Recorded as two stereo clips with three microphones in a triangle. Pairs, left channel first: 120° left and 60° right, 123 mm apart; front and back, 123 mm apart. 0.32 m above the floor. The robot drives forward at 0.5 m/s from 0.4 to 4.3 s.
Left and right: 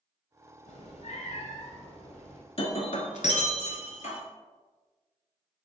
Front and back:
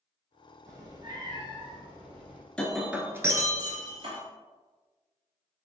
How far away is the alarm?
No alarm in this recording.